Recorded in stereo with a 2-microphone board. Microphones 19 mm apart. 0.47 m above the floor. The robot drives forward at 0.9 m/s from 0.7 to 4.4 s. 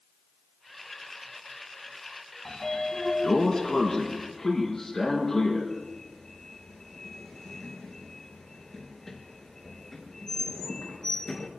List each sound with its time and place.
2.5 s a sliding door: 35° left (ahead or behind), 2.5 m; by 11.5 s 20° left (ahead or behind), 4 m